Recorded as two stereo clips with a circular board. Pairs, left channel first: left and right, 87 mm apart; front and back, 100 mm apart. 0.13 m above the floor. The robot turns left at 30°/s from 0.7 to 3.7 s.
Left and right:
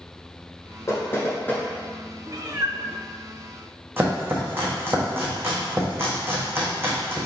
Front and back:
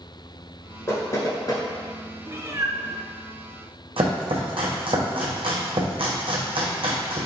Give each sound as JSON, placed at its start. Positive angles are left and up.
{"t": 0.9, "sound": "knocking", "azimuth_deg": 50, "distance_m": 1.1}
{"t": 2.3, "sound": "a cat meowing", "azimuth_deg": -120, "distance_m": 0.5}
{"t": 4.0, "sound": "chopping", "azimuth_deg": -155, "distance_m": 1.1}